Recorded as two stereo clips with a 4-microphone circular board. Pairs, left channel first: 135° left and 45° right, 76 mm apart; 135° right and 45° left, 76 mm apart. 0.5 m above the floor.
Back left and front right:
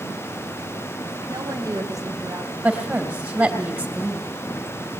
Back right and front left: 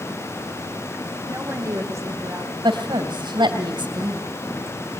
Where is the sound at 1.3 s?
10° right, 3.5 m; by 2.5 s straight ahead, 3 m.